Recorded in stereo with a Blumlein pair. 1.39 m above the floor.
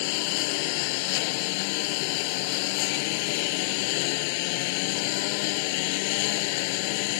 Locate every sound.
0.0 s a lawn mower: 45° left